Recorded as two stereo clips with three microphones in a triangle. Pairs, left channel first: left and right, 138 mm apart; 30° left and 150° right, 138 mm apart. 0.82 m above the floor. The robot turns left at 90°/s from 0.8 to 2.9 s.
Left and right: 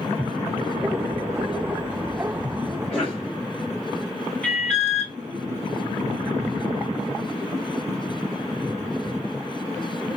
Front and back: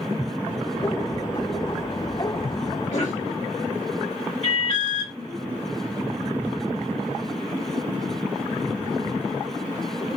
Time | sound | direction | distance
2.9 | a cough | 5° left | 1.3 m
4.4 | an alarm | 10° left | 2.5 m